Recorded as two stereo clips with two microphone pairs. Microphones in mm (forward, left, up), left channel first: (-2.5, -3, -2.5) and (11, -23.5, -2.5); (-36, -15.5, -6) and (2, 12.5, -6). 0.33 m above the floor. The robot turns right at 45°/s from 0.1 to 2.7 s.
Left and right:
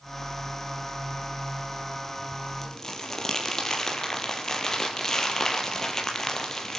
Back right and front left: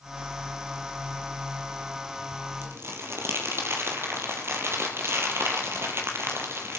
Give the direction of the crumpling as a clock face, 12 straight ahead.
10 o'clock.